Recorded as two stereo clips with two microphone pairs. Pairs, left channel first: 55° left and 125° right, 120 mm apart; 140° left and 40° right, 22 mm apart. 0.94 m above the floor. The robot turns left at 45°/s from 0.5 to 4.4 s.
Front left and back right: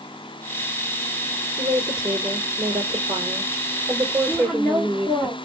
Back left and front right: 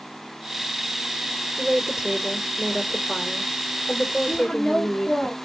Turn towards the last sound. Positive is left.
turn(degrees=130)